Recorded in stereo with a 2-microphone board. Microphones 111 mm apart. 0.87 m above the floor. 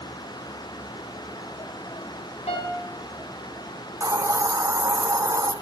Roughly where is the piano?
Left.